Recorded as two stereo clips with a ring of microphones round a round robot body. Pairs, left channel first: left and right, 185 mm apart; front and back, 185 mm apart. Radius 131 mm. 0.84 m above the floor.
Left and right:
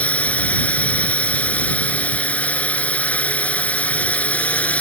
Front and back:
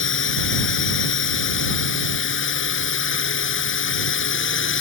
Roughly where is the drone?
Ahead.